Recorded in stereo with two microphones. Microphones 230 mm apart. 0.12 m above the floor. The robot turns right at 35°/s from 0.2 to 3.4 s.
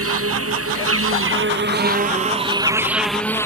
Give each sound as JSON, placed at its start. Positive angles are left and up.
{"t": 0.0, "sound": "an insect", "azimuth_deg": -100}